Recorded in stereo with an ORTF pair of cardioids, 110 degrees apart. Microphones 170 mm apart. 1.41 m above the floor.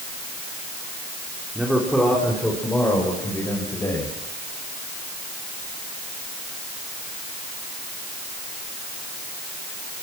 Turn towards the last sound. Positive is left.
turn(degrees=15)